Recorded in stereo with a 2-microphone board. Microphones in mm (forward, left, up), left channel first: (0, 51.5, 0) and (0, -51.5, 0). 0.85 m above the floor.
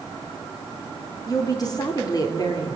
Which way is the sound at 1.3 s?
40° left (ahead or behind).